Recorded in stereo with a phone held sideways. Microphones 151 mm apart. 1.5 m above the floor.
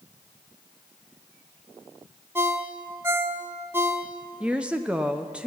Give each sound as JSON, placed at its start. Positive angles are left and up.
{"t": 2.4, "sound": "a ringtone", "side_deg": -15, "distance_m": 0.7}
{"t": 4.4, "sound": "a woman speaking", "side_deg": -5, "distance_m": 0.5}